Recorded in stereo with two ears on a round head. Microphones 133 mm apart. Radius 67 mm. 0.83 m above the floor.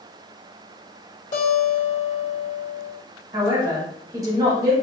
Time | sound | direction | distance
1.3 | a guitar | 50° left (ahead or behind) | 1.3 m
3.3 | a man speaking | 25° right (ahead or behind) | 1.2 m